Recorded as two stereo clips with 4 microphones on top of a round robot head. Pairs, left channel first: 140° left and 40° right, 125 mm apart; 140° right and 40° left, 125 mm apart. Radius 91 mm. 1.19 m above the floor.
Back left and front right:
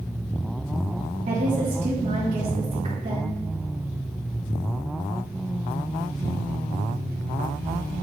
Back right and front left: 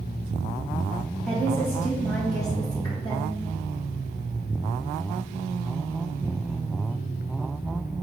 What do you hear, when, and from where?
1.3 s a woman speaking: 60° right, 1.3 m; by 3.4 s 85° right, 2.5 m